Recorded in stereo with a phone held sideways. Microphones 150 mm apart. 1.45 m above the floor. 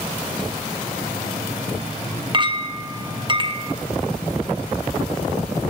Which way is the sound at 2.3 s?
35° right (ahead or behind).